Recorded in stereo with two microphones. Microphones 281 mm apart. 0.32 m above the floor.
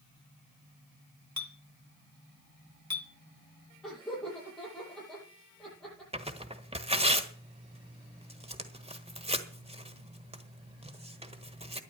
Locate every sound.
1.4 s a clink: 65° right (ahead or behind), 1.6 m
3.8 s laughter: 5° left (ahead or behind), 9.5 m
6.1 s tearing paper: 20° right (ahead or behind), 1.4 m